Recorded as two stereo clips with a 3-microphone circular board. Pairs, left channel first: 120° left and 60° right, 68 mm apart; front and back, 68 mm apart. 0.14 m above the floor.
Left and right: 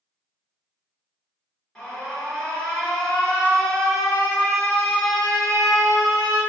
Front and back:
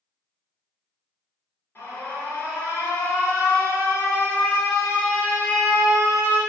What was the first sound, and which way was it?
An alarm, 45° left.